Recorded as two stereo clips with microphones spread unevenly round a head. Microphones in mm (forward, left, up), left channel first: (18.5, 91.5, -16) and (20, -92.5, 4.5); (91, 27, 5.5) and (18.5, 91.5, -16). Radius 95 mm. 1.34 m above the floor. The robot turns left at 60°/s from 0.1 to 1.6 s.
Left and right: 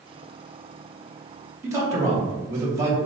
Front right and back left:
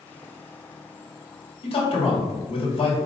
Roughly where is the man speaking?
Ahead.